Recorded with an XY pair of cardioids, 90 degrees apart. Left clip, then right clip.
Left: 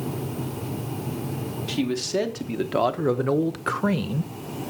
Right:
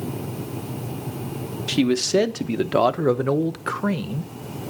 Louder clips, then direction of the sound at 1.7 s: Right 6 dB; 55° right.